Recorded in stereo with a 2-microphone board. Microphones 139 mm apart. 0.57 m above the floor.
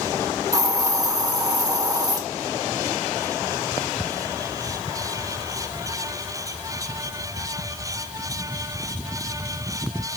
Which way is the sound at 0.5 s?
25° right (ahead or behind).